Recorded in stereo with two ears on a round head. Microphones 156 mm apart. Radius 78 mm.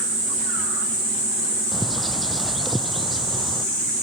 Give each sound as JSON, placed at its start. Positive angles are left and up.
{"t": 1.7, "sound": "a bird", "side_deg": 0}